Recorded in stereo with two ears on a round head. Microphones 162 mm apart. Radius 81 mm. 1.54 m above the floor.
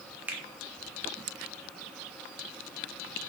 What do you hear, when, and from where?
0.3 s a finger snap: 10° right (ahead or behind), 0.7 m